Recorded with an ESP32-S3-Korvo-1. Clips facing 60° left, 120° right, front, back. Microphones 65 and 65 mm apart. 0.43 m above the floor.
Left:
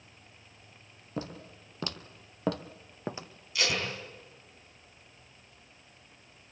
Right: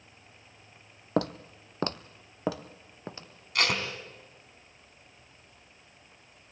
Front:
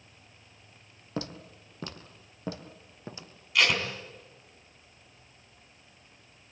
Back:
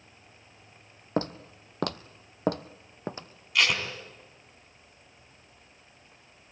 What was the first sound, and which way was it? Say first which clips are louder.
Footsteps: right 10 dB, back 7 dB; 130° right.